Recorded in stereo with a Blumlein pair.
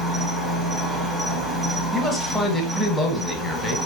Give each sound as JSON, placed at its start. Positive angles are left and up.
{"t": 0.0, "sound": "an insect", "azimuth_deg": 5, "distance_m": 0.8}
{"t": 1.9, "sound": "a man speaking", "azimuth_deg": 10, "distance_m": 0.8}